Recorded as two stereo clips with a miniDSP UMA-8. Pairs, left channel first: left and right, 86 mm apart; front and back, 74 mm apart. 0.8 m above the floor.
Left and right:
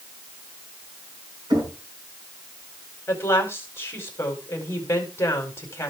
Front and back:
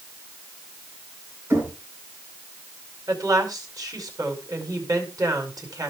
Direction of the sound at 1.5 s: 120° right.